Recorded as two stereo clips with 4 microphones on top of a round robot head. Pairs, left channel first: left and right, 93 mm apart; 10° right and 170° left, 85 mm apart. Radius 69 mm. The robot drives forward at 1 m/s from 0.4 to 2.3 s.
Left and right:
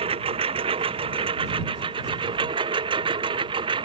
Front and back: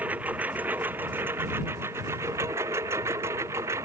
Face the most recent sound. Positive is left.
turn(degrees=-125)